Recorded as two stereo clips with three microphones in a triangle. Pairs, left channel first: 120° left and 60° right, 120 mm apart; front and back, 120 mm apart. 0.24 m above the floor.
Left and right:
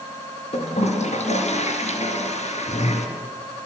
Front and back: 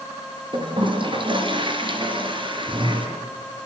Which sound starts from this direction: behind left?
A toilet flushing, at 0.5 s.